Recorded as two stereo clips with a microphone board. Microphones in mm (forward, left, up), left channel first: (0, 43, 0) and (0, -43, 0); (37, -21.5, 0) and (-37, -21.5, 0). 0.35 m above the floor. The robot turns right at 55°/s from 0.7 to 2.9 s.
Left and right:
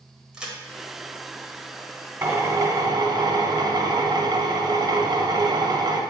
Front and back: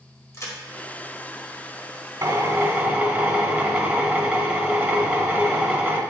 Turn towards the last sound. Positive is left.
turn(degrees=-110)